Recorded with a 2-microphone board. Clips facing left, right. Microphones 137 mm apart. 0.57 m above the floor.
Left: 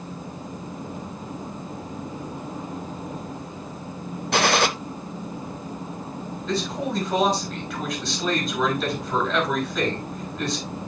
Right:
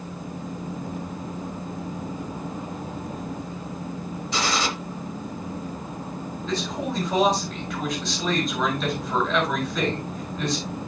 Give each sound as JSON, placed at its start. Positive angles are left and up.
{"t": 4.3, "sound": "a gunshot", "side_deg": 65, "distance_m": 0.6}
{"t": 6.5, "sound": "a man speaking", "side_deg": 0, "distance_m": 5.0}